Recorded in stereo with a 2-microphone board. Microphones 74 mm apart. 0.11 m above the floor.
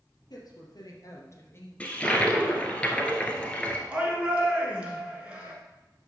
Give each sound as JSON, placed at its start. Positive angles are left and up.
{"t": 0.3, "sound": "a woman speaking", "side_deg": 60, "distance_m": 2.5}
{"t": 1.8, "sound": "a toilet flushing", "side_deg": 20, "distance_m": 1.3}
{"t": 3.9, "sound": "a shout", "side_deg": -15, "distance_m": 1.6}